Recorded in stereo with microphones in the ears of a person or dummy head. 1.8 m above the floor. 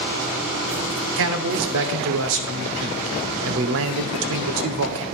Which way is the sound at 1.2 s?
65° right (ahead or behind).